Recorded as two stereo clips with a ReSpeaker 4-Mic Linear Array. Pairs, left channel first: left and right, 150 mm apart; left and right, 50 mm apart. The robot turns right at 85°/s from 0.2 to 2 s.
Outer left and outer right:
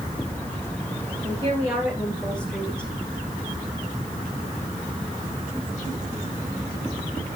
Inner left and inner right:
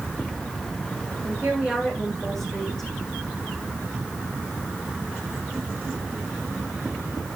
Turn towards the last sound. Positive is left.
turn(degrees=5)